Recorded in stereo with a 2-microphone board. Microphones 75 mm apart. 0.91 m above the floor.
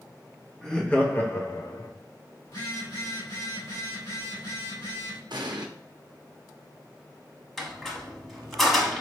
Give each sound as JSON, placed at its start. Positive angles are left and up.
{"t": 0.6, "sound": "laughter", "side_deg": 10, "distance_m": 1.2}
{"t": 2.5, "sound": "a phone buzzing", "side_deg": 70, "distance_m": 1.9}
{"t": 5.3, "sound": "an explosion", "side_deg": -75, "distance_m": 0.8}
{"t": 7.6, "sound": "a squeak", "side_deg": 0, "distance_m": 1.2}